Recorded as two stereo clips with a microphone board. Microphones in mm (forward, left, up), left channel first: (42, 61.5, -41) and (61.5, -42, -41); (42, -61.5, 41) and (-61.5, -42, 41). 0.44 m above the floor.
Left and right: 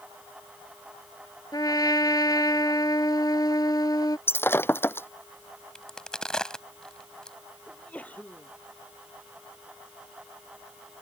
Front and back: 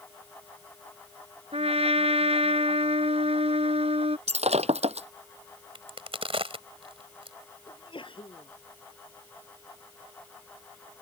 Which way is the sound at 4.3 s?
170° left.